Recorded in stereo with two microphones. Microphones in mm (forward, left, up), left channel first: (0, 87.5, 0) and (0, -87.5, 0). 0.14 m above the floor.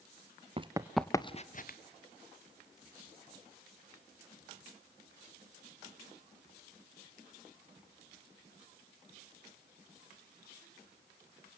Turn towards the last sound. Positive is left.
turn(degrees=60)  # may be behind; listen again after turning